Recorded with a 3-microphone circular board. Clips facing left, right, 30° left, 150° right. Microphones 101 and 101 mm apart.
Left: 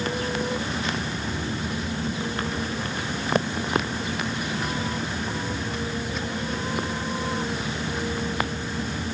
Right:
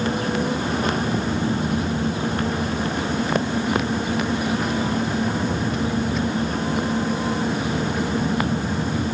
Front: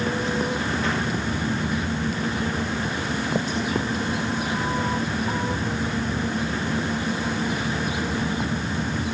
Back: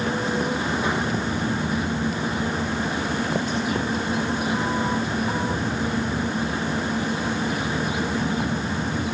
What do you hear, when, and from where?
Only background noise.